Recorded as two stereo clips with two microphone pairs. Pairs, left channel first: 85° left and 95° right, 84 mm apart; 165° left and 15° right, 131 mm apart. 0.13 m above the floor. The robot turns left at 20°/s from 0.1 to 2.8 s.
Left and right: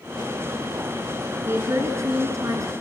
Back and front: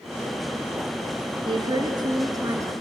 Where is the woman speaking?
50° right, 2 m; by 2.7 s 75° right, 2 m.